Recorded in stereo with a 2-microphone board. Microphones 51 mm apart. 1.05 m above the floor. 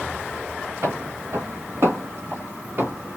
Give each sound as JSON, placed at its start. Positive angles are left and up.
{"t": 0.8, "sound": "footsteps", "side_deg": -60, "distance_m": 2.0}